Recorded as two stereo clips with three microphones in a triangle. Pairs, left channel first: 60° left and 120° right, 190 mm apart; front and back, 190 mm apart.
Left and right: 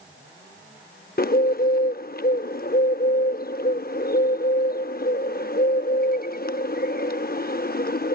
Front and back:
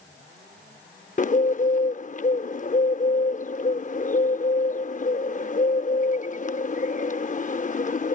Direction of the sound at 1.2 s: 40° left.